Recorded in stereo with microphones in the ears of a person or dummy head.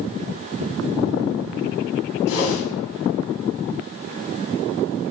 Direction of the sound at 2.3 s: 65° left (ahead or behind).